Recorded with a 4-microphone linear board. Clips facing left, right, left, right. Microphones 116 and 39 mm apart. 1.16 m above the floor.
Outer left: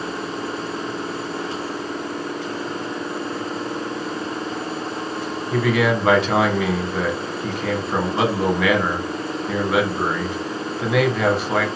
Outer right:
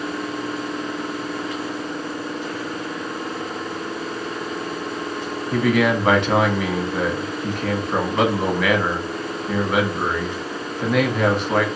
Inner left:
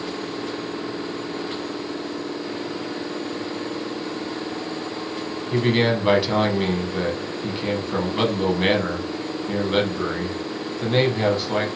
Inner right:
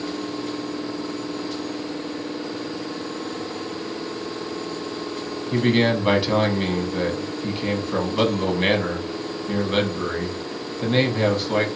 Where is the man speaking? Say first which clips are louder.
Outer right 1 dB, inner right 1 dB; centre (ahead or behind), 0.9 m.